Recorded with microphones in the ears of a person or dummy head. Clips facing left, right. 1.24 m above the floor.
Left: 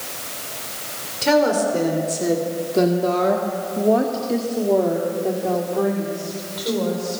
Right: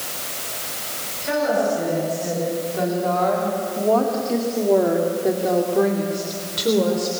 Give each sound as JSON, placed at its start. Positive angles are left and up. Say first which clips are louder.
{"t": 1.2, "sound": "a woman speaking", "louder": "left 3 dB", "side_deg": 80, "distance_m": 3.5}